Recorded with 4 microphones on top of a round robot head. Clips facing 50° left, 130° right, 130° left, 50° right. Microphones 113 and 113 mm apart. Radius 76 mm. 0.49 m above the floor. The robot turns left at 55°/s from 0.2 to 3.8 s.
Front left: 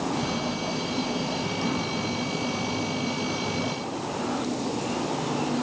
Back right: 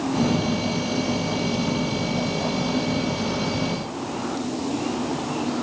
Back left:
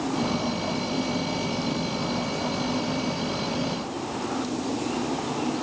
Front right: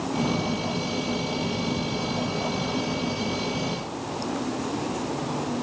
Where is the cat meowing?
No cat meowing in this recording.